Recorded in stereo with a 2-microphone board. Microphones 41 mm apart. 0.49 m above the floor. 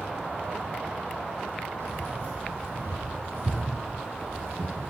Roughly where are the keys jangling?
Right.